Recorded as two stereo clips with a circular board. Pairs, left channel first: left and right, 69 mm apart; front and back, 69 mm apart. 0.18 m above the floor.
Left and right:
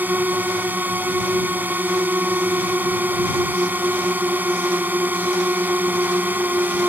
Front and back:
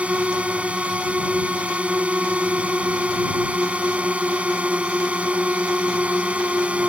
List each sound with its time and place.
0.0 s a drone: 125° right